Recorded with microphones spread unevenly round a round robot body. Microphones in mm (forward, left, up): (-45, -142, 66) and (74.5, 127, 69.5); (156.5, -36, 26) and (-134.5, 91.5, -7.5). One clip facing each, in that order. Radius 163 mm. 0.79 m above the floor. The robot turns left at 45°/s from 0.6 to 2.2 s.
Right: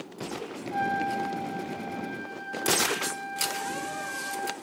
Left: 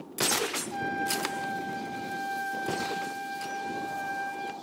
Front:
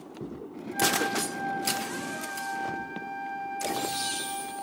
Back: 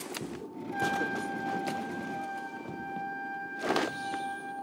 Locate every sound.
0.7 s a trumpet: 140° left, 1.0 m; by 4.5 s 75° left, 1.0 m